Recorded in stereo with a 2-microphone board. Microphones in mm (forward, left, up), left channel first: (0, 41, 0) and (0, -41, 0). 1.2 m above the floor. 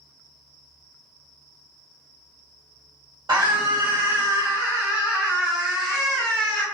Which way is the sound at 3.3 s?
55° right (ahead or behind).